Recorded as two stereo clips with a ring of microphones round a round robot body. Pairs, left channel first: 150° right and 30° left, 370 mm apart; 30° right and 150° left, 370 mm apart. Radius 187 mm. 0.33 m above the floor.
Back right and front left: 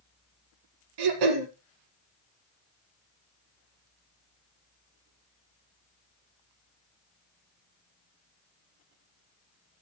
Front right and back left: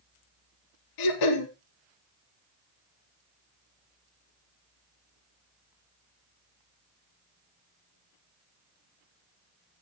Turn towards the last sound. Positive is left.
turn(degrees=5)